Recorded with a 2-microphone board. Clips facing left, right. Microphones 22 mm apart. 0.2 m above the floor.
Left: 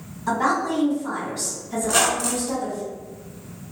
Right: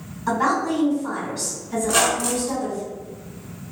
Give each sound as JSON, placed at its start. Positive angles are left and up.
{"t": 0.3, "sound": "a woman speaking", "side_deg": -15, "distance_m": 1.6}
{"t": 1.8, "sound": "a squeak", "side_deg": 5, "distance_m": 0.5}